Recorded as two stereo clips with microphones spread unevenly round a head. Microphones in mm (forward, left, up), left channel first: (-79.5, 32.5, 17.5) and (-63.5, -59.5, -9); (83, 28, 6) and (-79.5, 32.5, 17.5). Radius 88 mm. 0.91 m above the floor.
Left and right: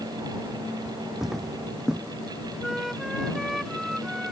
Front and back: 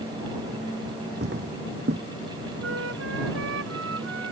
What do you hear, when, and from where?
1.2 s footsteps: 175° right
2.6 s a flute: 170° right